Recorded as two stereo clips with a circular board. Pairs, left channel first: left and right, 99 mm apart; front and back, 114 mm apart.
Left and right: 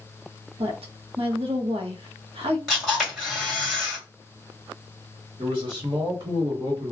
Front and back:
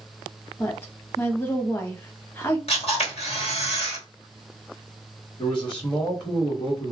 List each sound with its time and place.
0.6 s a woman speaking: 70° right, 0.8 m
2.7 s a camera shutter: straight ahead, 1.8 m
5.4 s a man speaking: 50° right, 1.2 m